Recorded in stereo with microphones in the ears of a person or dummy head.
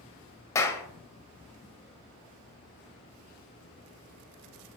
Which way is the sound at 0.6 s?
15° left (ahead or behind).